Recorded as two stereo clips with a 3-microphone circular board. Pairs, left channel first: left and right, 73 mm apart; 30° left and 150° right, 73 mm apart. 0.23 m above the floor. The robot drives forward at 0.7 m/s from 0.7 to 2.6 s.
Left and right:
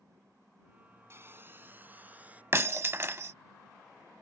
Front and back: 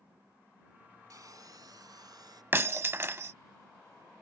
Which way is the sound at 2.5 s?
110° right.